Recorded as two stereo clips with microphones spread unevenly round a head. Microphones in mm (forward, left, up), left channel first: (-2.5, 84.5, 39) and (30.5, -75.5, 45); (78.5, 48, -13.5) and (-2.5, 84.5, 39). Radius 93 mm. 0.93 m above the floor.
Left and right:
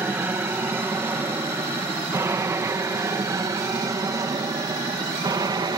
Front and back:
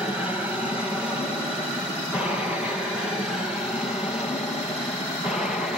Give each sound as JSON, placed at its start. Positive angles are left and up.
{"t": 0.0, "sound": "an aircraft", "azimuth_deg": -20}